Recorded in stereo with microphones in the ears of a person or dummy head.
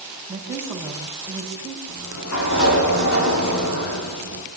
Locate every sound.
0.3 s a woman speaking: 15° right (ahead or behind), 7 m
1.9 s a sliding door: 75° left (ahead or behind), 8 m